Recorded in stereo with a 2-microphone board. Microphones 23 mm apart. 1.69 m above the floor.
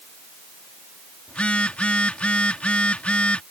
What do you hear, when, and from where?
1.3 s a phone buzzing: 65° left (ahead or behind)